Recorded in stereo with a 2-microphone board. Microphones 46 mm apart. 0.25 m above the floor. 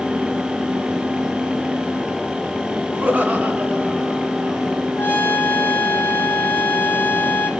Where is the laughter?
35° right (ahead or behind), 3 m; by 4.8 s 30° right (ahead or behind), 4 m.